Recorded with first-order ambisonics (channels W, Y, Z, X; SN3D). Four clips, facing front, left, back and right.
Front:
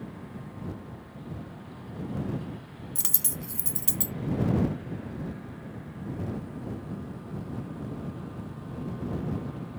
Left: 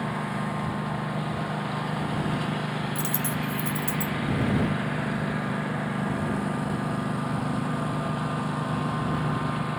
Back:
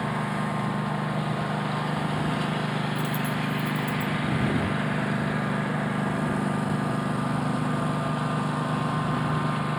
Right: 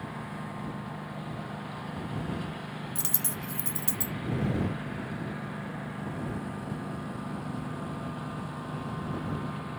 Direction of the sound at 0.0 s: 150° left.